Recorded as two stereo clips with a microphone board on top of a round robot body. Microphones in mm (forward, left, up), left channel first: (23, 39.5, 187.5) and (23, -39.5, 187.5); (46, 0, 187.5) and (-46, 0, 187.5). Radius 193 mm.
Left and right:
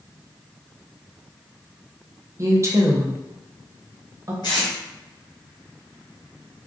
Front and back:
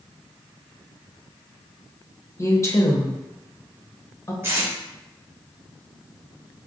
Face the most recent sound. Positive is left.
turn(degrees=115)